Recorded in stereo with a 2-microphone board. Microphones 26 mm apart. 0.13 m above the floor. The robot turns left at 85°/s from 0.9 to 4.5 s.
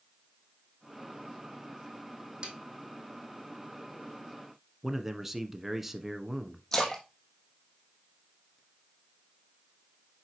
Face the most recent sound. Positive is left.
turn(degrees=25)  # may be behind; listen again after turning